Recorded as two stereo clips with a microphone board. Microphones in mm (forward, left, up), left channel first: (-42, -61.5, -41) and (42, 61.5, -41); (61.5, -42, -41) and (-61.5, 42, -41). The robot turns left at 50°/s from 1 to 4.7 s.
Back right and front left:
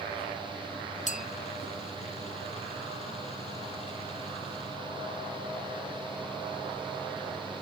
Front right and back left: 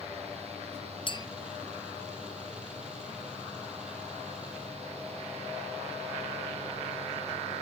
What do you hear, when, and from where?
1.1 s a clink: 90° right; by 1.3 s 100° right